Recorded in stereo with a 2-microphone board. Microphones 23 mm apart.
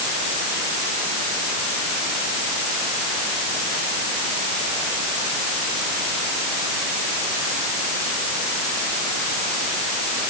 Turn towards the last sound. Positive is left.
No sound to turn to.